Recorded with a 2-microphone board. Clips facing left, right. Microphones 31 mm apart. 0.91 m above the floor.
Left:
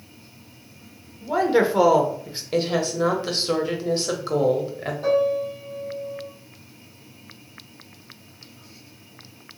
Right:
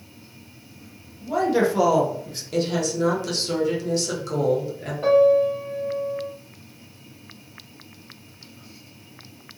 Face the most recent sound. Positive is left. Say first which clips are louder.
# right 6 dB
turn(degrees=-50)  # may be behind; listen again after turning